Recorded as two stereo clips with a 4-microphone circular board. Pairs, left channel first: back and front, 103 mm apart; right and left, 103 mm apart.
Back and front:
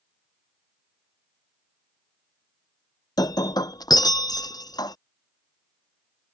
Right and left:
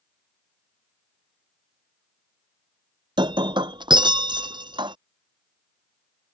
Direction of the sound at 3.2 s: 130° left.